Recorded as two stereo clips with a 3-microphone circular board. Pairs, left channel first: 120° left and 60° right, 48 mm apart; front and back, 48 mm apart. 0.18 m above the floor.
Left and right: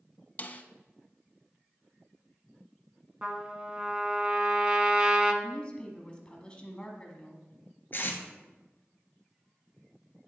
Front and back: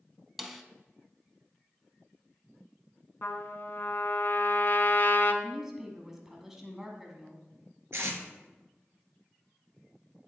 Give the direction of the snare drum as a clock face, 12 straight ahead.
9 o'clock.